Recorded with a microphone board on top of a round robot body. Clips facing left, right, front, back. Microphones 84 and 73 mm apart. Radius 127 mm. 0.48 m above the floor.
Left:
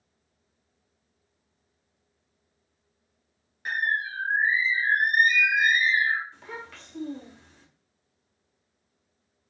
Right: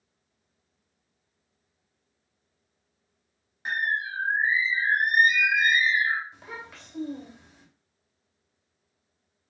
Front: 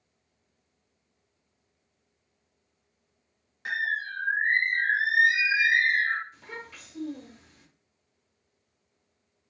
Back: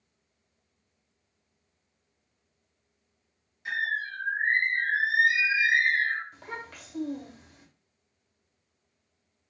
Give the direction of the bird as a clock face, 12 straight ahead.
1 o'clock.